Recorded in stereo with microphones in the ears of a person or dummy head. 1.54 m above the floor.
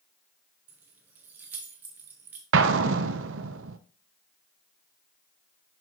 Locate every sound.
0.7 s keys jangling: 10° right (ahead or behind), 0.6 m
2.5 s an explosion: 80° right, 0.5 m